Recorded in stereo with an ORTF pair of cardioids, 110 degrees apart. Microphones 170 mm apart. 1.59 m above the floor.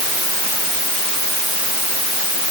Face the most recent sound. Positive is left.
No sound to turn to.